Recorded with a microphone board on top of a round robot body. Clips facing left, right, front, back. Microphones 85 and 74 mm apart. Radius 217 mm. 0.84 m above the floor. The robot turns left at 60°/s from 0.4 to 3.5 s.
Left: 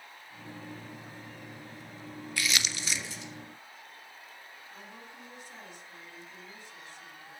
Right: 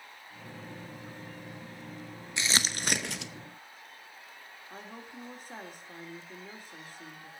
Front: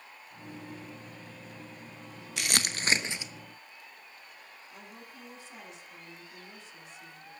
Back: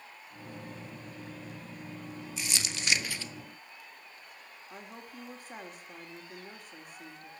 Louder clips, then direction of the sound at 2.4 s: Right 1 dB, front 6 dB; 20° right.